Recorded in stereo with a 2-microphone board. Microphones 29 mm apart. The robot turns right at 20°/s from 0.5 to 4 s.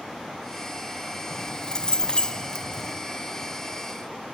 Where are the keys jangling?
70° left, 1.1 m; by 3.0 s 100° left, 1.1 m.